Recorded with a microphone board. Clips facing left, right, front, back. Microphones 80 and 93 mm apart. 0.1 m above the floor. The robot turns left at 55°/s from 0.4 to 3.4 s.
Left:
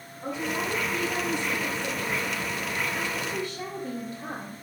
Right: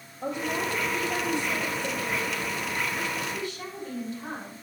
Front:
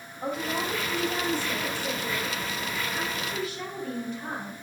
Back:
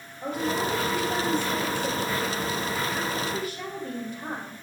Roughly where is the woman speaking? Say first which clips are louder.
Right 1 dB, back 3 dB; right.